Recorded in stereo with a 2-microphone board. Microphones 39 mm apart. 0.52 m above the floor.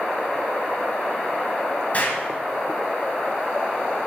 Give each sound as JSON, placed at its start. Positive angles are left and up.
{"t": 1.9, "sound": "an explosion", "side_deg": 40, "distance_m": 1.6}